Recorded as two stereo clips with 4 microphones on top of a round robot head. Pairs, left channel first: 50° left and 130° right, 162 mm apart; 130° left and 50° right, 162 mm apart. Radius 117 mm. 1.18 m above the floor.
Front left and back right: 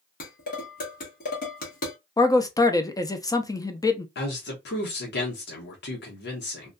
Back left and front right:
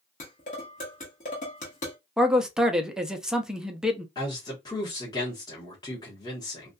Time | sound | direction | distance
0.2 | dishes clattering | 85° left | 1.0 m
2.2 | a man speaking | 30° left | 0.6 m
4.2 | a man speaking | 65° left | 0.9 m